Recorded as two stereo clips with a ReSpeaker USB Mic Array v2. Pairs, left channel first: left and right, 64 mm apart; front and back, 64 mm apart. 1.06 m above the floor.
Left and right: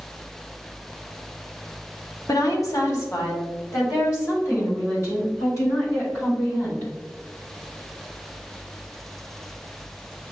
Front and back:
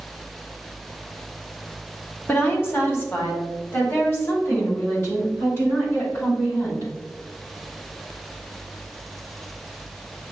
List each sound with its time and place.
2.3 s a woman speaking: 60° left, 1.0 m; by 6.9 s 40° left, 5.5 m